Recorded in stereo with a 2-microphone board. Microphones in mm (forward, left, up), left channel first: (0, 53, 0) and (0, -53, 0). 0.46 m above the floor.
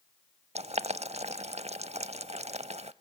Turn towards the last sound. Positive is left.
turn(degrees=-85)